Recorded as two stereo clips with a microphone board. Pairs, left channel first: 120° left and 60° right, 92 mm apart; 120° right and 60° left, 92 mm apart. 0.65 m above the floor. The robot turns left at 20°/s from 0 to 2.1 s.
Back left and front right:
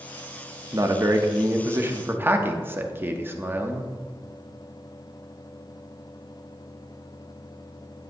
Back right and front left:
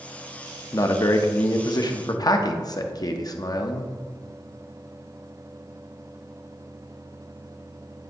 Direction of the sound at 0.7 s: 90° right.